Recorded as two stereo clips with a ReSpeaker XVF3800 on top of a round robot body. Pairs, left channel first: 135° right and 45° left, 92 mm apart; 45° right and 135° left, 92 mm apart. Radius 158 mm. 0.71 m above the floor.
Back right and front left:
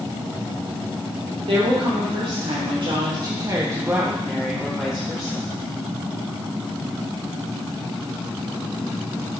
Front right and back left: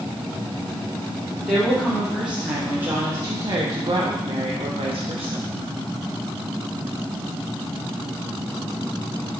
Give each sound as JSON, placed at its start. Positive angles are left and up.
{"t": 1.4, "sound": "a woman speaking", "azimuth_deg": 45, "distance_m": 2.0}